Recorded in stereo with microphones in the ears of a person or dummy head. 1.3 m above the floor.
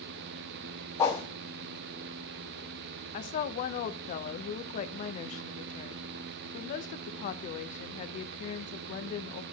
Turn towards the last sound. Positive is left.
turn(degrees=50)  # may be behind; listen again after turning